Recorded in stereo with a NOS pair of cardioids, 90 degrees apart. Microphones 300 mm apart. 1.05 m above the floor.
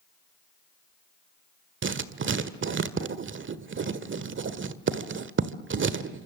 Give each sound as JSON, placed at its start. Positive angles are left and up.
{"t": 1.8, "sound": "writing", "azimuth_deg": -40, "distance_m": 1.7}